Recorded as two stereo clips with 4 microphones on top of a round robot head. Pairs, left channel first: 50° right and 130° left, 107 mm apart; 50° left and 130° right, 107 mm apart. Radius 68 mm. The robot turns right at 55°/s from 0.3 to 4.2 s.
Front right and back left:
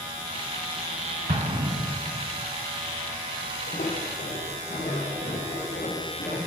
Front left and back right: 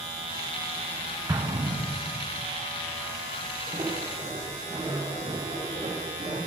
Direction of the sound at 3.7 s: 85° right.